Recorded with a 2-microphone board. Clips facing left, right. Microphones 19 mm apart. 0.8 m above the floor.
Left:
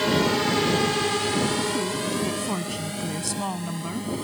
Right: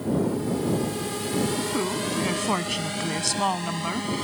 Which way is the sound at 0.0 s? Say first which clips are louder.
Left 4 dB; 70° left (ahead or behind).